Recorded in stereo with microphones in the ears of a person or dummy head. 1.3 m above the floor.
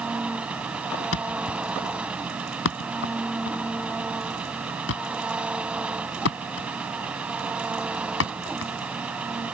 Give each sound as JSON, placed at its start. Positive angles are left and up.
{"t": 0.0, "sound": "an engine running", "side_deg": 0}
{"t": 1.1, "sound": "a thud", "side_deg": 80}